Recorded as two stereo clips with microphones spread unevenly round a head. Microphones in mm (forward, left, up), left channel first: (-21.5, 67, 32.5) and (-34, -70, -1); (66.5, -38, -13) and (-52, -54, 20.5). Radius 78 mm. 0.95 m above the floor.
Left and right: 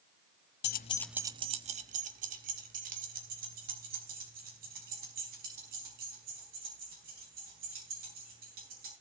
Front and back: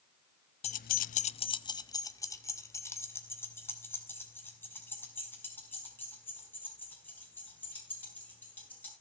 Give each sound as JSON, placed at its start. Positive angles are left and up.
{"t": 0.6, "sound": "keys jangling", "azimuth_deg": 60, "distance_m": 0.6}